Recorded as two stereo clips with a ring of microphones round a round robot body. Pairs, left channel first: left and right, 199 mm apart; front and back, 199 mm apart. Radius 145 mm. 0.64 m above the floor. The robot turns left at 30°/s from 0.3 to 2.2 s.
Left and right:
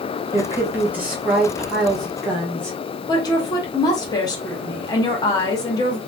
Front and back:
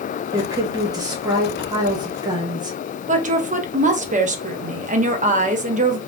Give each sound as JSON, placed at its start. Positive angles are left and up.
{"t": 0.3, "sound": "a woman speaking", "azimuth_deg": -140, "distance_m": 0.9}
{"t": 3.1, "sound": "a woman speaking", "azimuth_deg": 150, "distance_m": 0.6}